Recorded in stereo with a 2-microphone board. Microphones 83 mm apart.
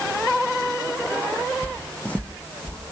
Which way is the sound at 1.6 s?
20° left (ahead or behind).